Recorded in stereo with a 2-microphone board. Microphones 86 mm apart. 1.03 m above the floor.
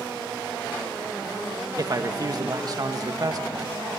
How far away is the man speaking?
About 1.4 m.